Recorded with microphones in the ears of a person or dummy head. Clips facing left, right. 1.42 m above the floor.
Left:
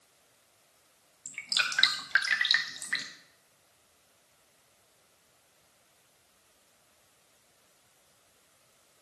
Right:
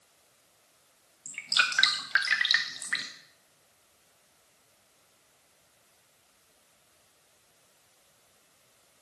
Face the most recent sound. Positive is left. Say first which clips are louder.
# right 5 dB
turn(degrees=5)  # may be behind; listen again after turning